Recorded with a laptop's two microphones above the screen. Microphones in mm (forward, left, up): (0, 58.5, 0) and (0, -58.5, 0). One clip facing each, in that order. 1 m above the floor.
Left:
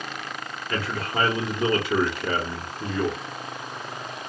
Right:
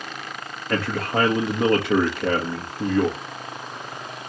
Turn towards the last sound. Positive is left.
turn(degrees=-70)  # may be behind; listen again after turning